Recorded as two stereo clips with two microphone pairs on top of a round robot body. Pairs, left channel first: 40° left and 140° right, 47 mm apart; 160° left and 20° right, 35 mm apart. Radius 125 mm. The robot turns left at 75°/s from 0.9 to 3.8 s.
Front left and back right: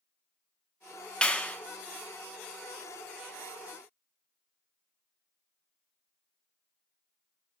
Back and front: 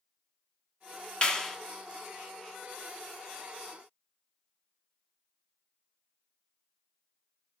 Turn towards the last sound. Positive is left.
turn(degrees=-105)